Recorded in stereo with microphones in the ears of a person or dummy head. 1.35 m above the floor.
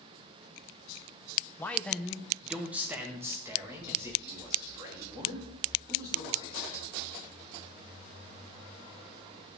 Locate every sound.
1.6 s a man speaking: 10° left (ahead or behind), 0.8 m; by 6.8 s 20° right (ahead or behind), 4 m